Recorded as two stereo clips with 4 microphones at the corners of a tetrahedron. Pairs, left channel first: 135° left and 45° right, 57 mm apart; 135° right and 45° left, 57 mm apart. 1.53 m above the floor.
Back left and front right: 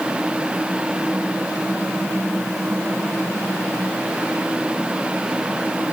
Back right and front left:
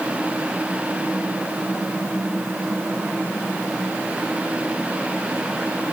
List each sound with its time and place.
Only background noise.